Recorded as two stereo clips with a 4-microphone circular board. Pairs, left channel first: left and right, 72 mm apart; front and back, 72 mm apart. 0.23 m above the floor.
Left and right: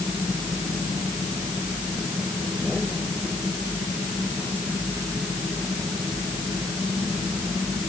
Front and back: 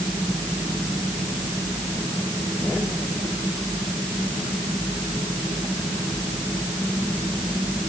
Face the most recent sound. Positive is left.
No sound to turn to.